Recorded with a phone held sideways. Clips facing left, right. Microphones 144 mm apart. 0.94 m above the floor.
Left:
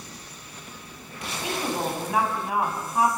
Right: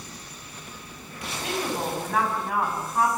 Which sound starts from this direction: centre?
A woman speaking, at 1.4 s.